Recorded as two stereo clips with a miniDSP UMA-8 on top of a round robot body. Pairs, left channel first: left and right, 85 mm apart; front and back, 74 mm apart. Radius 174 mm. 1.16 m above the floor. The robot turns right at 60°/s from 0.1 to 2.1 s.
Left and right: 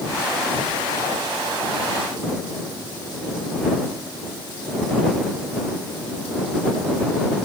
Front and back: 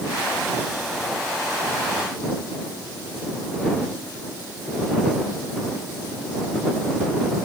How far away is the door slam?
No door slam in this recording.